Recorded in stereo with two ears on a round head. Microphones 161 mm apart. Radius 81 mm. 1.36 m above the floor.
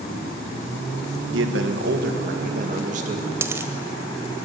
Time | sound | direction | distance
1.3 | a man speaking | 75° right (ahead or behind) | 1.8 m
3.4 | a dropped coin | 15° right (ahead or behind) | 1.2 m